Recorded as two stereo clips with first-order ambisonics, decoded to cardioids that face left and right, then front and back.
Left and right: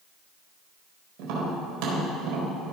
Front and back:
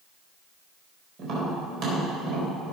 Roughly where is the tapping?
Behind right.